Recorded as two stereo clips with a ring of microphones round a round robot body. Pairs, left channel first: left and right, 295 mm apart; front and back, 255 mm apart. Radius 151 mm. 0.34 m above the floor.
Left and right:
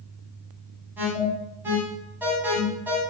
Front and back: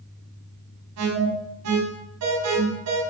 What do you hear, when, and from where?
1.0 s an alarm: 175° right, 4.5 m